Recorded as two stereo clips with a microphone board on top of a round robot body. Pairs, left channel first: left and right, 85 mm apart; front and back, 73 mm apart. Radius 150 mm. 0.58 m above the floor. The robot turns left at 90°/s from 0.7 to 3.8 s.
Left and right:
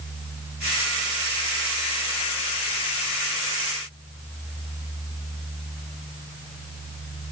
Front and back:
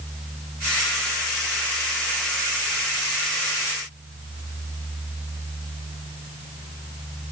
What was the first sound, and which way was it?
Only background noise.